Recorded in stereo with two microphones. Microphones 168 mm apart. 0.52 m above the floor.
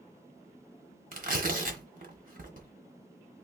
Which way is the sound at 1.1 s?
55° right (ahead or behind).